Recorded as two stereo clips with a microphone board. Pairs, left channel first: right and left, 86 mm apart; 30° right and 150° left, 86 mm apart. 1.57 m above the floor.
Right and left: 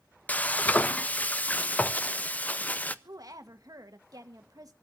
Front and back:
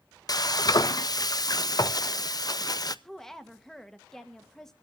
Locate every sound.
0.3 s frying: 25° right, 0.6 m
3.0 s a woman speaking: 55° left, 1.5 m